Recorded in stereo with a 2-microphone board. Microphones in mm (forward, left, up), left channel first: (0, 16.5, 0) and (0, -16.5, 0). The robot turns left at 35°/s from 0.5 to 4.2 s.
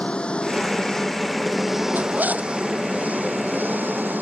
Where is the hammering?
I don't hear hammering.